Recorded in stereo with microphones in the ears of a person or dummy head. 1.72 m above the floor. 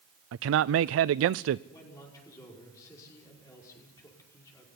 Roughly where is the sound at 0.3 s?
Right.